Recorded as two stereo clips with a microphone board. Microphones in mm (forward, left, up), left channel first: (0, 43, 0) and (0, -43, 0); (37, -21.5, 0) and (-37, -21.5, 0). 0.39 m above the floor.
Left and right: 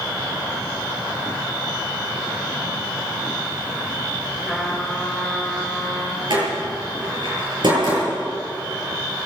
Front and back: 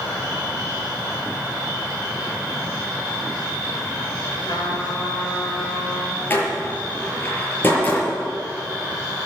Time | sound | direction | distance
4.4 | a trumpet | straight ahead | 5.5 m
6.3 | a door slam | 65° right | 6 m